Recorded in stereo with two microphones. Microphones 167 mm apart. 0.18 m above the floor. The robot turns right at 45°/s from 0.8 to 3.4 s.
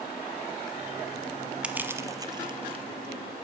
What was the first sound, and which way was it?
Crushing, 5° right (ahead or behind).